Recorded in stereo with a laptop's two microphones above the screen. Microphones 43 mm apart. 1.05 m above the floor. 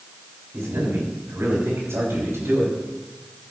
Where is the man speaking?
80° right, 6 m; by 2.7 s 85° right, 5 m.